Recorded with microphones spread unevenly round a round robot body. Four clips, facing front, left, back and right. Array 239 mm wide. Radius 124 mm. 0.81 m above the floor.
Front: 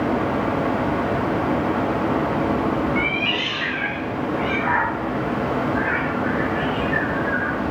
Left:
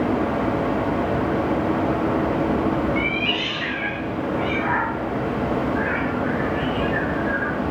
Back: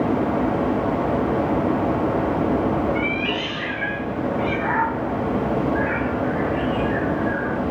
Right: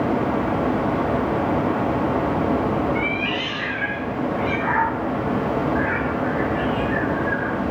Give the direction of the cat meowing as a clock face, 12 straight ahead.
7 o'clock.